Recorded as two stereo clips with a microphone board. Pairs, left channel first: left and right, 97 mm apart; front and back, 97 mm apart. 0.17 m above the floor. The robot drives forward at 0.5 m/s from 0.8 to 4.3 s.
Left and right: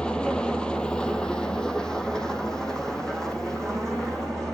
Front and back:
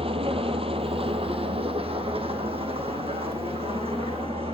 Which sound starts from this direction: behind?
An engine running, at 0.0 s.